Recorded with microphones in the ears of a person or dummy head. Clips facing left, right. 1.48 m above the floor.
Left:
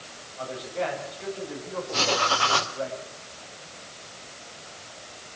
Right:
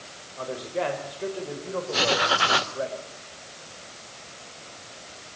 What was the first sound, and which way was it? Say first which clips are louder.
A man speaking: right 2 dB; 60° right (ahead or behind).